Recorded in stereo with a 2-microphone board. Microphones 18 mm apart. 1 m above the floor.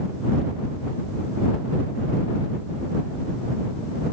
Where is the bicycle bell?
I don't hear a bicycle bell.